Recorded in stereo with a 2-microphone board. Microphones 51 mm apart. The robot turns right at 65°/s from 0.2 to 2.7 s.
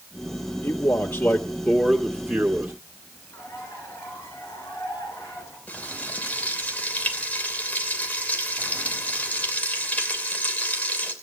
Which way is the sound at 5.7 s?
30° left (ahead or behind).